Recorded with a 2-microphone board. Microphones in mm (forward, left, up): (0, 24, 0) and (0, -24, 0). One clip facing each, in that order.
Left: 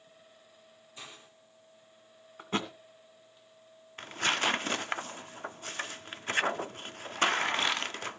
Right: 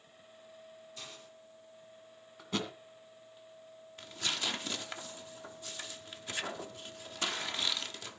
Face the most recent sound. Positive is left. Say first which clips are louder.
# left 8 dB
turn(degrees=45)  # may be behind; listen again after turning